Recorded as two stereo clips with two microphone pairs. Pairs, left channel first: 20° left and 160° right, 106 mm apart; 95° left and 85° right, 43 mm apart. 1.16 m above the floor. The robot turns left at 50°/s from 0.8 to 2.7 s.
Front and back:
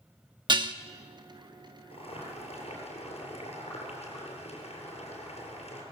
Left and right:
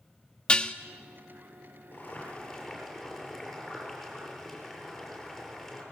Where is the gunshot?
No gunshot in this recording.